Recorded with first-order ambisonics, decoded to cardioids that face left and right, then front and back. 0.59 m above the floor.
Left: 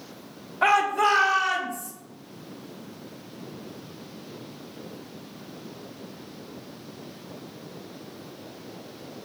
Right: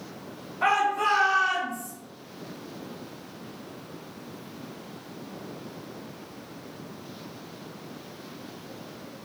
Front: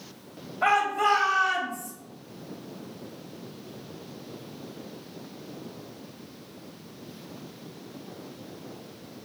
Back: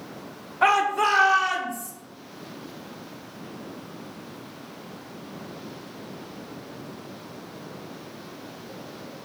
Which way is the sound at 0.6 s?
165° left.